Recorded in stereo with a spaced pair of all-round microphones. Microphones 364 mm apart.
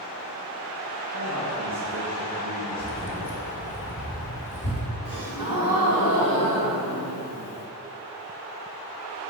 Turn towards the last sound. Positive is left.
turn(degrees=-70)  # may be behind; listen again after turning